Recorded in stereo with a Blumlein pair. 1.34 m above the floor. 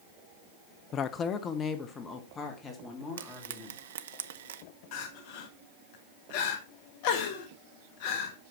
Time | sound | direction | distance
0.9 | a woman speaking | 30° left | 0.5 m
3.2 | frying | 60° right | 0.5 m
4.9 | crying | 45° left | 1.3 m